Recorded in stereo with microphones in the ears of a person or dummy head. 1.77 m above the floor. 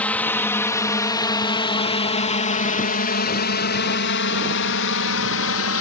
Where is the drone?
10° left (ahead or behind); by 5.8 s 70° left (ahead or behind).